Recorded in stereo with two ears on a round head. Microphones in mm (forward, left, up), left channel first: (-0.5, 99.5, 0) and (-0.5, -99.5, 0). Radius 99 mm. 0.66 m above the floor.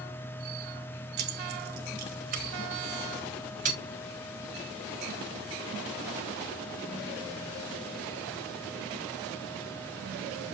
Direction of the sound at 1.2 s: 50° right (ahead or behind).